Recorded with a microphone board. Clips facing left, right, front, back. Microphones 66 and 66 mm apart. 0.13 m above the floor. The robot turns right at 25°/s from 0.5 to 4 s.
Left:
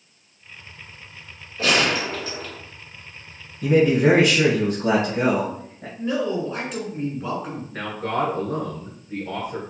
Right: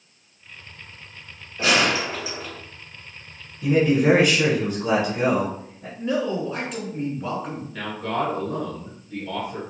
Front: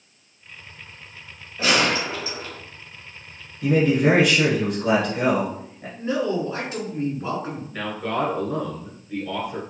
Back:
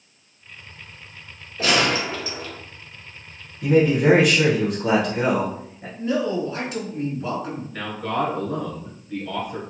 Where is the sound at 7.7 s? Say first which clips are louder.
Left 1 dB, even; 90° left, 1.3 m.